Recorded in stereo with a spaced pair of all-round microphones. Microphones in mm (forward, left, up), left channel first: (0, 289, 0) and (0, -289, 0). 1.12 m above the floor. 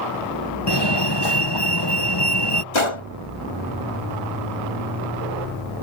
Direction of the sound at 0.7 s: 40° left (ahead or behind).